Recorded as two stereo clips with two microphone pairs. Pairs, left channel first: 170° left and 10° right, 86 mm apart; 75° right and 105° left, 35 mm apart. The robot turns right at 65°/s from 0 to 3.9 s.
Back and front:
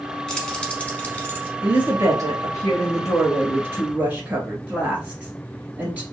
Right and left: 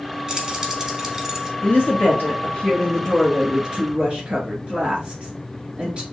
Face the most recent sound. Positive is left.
turn(degrees=60)